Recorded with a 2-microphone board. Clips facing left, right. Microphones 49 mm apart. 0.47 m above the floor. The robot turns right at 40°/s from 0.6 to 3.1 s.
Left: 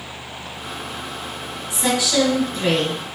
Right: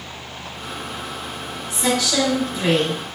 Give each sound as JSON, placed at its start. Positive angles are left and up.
{"t": 1.7, "sound": "a woman speaking", "azimuth_deg": 150, "distance_m": 1.1}